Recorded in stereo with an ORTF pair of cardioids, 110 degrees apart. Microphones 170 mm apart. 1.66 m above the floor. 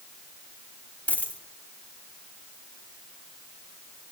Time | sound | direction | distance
1.1 | a dropped coin | 10° left | 3 m